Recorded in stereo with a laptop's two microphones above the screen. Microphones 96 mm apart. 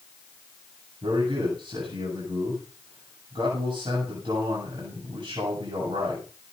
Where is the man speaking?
60° right (ahead or behind), 7.5 m.